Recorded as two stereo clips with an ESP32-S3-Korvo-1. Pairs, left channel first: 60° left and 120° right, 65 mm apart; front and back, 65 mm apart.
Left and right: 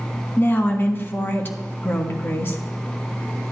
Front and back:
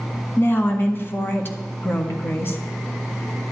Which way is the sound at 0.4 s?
30° left.